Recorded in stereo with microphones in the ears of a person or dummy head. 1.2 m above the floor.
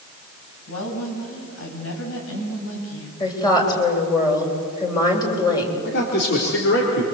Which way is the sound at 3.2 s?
25° left (ahead or behind).